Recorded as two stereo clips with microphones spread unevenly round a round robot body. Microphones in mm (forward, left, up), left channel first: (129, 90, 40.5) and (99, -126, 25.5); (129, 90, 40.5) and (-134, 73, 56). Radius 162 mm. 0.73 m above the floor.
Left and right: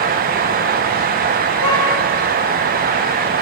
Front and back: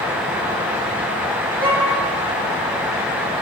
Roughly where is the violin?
Left.